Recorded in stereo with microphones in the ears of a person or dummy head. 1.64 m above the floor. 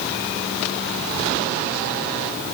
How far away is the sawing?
I don't hear sawing.